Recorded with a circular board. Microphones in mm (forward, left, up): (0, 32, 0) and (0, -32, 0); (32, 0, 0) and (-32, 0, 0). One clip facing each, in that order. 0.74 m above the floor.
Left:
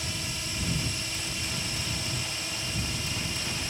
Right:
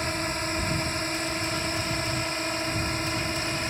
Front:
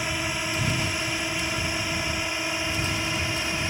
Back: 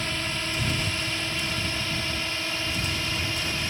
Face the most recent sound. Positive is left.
turn(degrees=-65)